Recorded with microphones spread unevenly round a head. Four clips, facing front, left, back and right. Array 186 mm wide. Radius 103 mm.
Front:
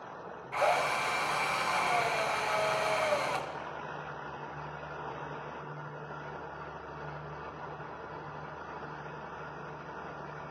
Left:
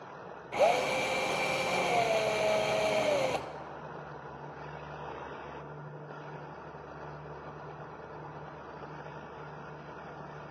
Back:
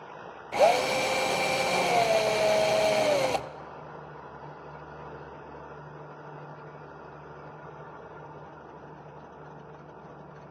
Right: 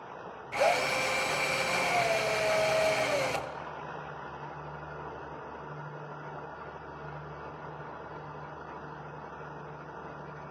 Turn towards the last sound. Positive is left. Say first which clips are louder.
# left 1 dB, back 6 dB
turn(degrees=160)